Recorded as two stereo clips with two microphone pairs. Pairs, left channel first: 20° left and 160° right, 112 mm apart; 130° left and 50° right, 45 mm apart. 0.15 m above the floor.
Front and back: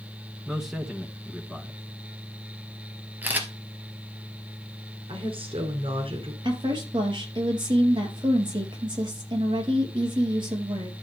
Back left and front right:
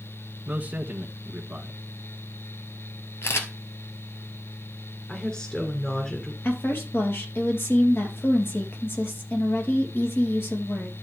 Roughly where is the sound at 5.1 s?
Behind.